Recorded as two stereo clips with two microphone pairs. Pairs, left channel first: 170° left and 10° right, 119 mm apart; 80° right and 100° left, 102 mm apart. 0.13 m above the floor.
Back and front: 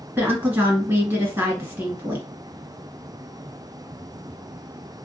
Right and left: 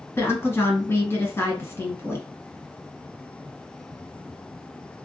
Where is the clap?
I don't hear a clap.